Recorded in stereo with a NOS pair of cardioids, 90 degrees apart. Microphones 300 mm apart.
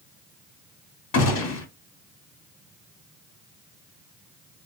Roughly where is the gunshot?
Ahead left.